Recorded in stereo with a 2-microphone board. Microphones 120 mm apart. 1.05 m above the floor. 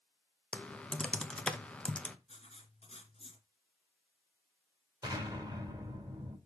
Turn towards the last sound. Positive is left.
turn(degrees=-30)  # may be behind; listen again after turning